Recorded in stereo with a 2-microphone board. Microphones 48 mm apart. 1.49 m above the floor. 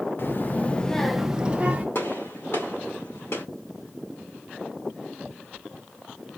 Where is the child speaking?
55° left (ahead or behind), 0.8 m; by 1.9 s 30° right (ahead or behind), 0.9 m.